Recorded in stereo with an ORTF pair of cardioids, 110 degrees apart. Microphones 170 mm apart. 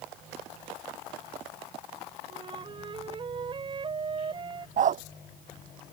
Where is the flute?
30° right.